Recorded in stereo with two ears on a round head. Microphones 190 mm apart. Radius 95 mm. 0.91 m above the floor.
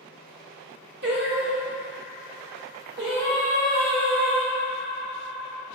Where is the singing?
50° right (ahead or behind), 0.6 m.